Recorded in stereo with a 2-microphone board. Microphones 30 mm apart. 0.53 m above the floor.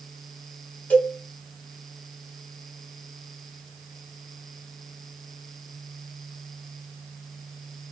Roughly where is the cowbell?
Left.